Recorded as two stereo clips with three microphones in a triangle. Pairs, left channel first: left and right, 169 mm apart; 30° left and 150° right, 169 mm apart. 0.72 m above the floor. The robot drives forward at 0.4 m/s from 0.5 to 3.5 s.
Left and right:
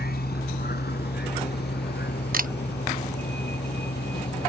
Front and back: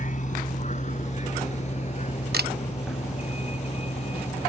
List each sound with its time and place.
0.0 s a vehicle: 70° left; by 4.5 s 80° left
2.3 s a camera shutter: 125° right; by 2.5 s 130° right